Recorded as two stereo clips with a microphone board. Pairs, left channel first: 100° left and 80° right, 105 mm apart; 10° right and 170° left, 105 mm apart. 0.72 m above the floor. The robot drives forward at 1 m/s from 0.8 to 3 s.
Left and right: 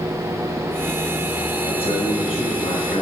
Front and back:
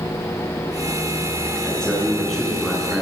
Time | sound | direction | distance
1.6 | a man speaking | 70° left | 9 m